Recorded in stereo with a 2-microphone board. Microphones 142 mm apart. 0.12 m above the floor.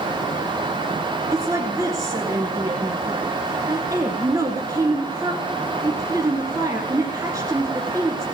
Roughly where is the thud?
I don't hear a thud.